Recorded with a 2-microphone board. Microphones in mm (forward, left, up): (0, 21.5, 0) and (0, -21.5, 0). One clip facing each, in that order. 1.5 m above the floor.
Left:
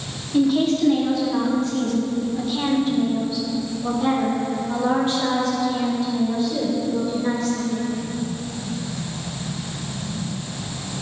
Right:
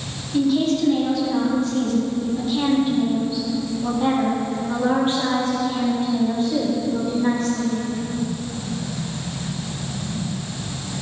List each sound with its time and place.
0.3 s a woman speaking: 20° left (ahead or behind), 4.5 m; by 7.8 s 55° right (ahead or behind), 4.5 m